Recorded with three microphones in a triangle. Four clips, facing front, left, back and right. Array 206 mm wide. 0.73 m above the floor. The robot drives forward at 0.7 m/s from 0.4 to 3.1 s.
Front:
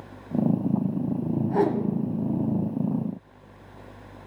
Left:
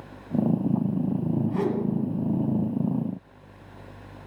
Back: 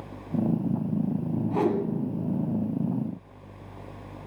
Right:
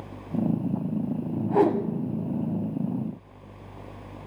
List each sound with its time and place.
1.5 s a whoosh: 70° right, 0.9 m; by 1.9 s 90° right, 0.9 m